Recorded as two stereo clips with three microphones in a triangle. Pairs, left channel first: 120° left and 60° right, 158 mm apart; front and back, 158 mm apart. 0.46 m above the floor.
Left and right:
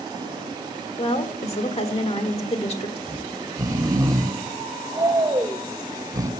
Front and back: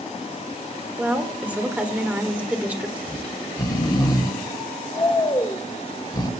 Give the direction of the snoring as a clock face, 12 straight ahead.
1 o'clock.